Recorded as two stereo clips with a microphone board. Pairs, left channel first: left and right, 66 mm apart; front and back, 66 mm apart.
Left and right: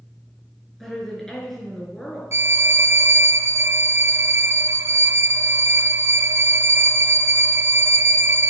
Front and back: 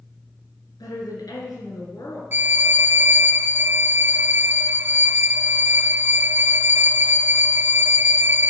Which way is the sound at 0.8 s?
5° left.